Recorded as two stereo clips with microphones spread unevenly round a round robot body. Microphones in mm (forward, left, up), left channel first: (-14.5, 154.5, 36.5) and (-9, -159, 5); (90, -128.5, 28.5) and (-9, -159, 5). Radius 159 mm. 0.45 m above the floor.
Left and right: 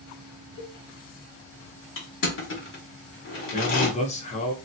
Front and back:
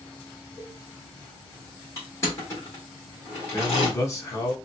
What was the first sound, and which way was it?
A cowbell, 95° left.